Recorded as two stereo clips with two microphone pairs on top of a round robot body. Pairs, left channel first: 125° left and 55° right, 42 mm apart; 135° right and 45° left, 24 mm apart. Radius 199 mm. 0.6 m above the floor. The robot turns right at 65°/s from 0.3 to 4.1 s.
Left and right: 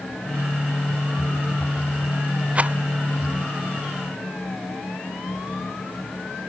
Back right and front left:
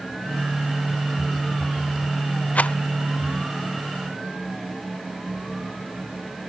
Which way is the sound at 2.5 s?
120° right.